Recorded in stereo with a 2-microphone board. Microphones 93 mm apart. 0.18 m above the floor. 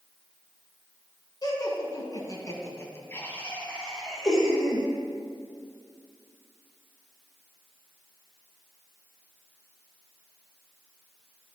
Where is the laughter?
45° left (ahead or behind), 2.5 m; by 4.9 s 15° right (ahead or behind), 2 m.